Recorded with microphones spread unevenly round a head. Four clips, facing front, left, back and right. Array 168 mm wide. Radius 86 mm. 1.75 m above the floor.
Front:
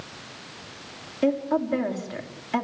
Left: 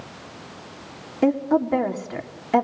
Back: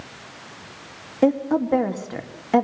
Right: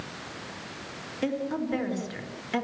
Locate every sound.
1.2 s a woman speaking: 150° left, 3.5 m